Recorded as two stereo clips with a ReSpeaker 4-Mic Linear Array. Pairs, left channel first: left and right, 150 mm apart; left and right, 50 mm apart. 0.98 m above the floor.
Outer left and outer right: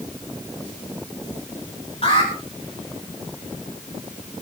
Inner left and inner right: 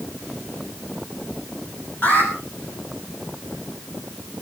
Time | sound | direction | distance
2.0 | an alarm | 45° left (ahead or behind) | 9.5 m